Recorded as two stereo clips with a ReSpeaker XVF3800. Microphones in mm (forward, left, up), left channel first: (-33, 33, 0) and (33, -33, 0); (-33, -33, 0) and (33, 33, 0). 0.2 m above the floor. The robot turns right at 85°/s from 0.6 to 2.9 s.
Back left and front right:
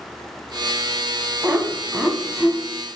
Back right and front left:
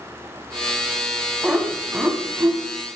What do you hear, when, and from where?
1.4 s laughter: 25° right, 1.3 m; by 2.6 s 70° left, 1.3 m